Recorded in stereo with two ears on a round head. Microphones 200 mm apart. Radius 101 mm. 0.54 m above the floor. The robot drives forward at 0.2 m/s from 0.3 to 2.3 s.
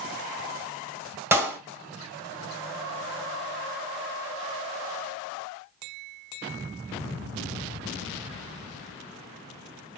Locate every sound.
1.3 s a clap: 10° right (ahead or behind), 2.0 m